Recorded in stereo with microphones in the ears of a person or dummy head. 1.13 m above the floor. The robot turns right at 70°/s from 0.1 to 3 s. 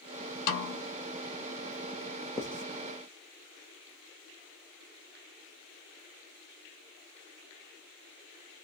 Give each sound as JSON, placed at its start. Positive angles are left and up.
{"t": 0.5, "sound": "a snare drum", "side_deg": 60, "distance_m": 1.2}
{"t": 2.4, "sound": "writing", "side_deg": 15, "distance_m": 0.5}